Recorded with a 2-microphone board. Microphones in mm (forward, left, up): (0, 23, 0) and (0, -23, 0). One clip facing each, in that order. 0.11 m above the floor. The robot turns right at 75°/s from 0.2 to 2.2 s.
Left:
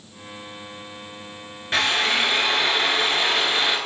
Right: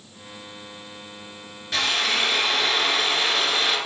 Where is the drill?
110° left, 1.0 m; by 3.8 s 145° left, 1.0 m.